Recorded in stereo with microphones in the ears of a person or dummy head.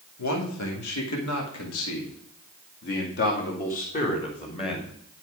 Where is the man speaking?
85° left, 2.5 m; by 4.9 s 25° left (ahead or behind), 2 m.